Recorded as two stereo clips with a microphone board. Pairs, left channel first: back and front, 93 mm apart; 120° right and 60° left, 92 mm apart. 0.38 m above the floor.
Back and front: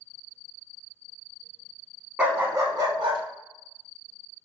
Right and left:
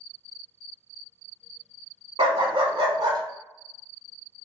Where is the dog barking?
75° left, 0.7 m; by 3.2 s 25° left, 0.9 m.